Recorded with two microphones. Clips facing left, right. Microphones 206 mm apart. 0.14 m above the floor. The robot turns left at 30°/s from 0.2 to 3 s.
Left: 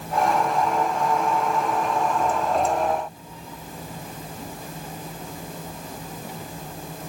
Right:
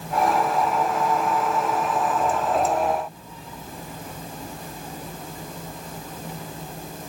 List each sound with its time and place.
Only background noise.